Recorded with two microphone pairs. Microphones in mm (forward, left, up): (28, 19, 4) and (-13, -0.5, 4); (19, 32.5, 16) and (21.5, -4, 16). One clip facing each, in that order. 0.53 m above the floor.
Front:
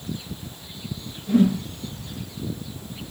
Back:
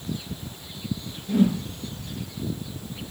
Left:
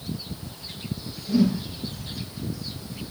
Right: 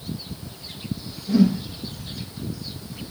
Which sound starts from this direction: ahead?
A whoosh, at 1.3 s.